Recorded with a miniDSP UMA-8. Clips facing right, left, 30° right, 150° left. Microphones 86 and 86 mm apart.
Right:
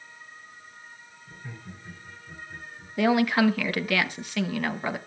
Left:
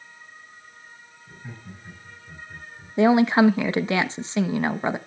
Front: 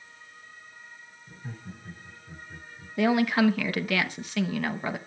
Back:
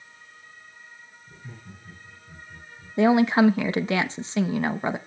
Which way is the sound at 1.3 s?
15° left.